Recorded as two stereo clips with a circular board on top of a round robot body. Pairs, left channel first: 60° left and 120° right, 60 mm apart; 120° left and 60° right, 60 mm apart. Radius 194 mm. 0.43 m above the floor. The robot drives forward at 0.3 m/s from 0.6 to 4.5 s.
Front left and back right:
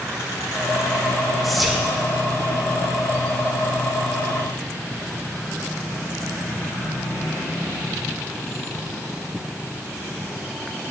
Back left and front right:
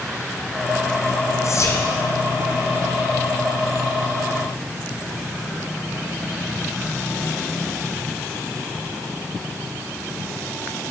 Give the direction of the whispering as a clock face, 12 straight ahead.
7 o'clock.